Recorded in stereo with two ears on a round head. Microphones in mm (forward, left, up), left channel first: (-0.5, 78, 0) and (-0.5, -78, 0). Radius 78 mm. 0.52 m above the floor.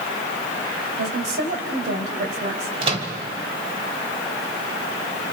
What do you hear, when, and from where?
1.0 s a woman speaking: 60° right (ahead or behind), 2.5 m
2.8 s a microwave: 35° right (ahead or behind), 1.8 m